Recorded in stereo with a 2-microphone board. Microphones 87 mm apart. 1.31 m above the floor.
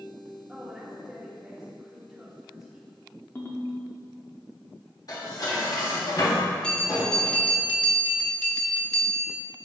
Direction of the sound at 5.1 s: 50° left (ahead or behind).